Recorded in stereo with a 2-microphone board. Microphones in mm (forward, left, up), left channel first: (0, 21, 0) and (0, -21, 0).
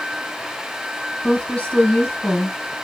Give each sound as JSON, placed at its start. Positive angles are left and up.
{"t": 1.2, "sound": "a woman speaking", "side_deg": 25, "distance_m": 1.5}